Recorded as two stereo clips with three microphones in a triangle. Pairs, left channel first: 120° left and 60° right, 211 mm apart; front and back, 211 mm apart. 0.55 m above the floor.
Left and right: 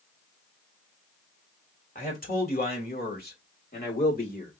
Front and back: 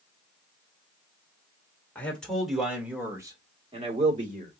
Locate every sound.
1.9 s a man speaking: 80° left, 2 m; by 4.5 s 150° left, 1.9 m